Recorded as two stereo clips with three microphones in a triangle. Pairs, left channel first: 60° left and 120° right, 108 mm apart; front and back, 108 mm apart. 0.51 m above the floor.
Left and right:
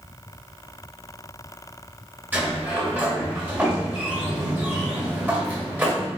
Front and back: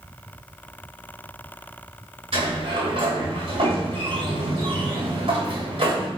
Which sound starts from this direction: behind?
A sliding door, at 2.3 s.